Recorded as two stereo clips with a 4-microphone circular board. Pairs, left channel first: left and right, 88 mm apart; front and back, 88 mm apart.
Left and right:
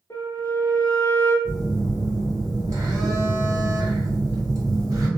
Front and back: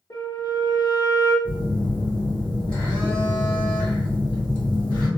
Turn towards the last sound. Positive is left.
turn(degrees=-70)